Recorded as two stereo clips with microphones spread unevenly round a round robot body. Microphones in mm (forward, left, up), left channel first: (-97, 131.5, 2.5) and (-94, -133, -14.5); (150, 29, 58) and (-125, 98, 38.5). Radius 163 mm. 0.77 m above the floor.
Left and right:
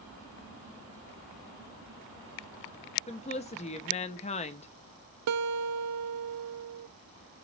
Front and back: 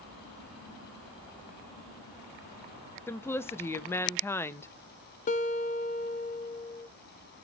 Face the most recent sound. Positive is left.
turn(degrees=-80)